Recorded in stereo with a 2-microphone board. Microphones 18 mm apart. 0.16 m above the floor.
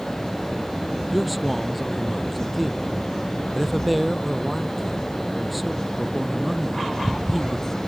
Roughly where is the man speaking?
Centre.